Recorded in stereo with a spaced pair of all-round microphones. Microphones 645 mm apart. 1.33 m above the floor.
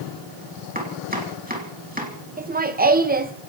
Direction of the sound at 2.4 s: 15° right (ahead or behind).